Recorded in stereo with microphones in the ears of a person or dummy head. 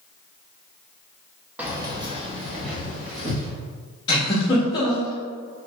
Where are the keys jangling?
5° right (ahead or behind), 0.6 m; by 3.5 s 40° right (ahead or behind), 1.8 m.